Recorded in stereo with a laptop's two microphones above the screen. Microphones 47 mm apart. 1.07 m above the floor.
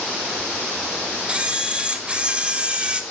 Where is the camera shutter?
25° right (ahead or behind), 1.2 m.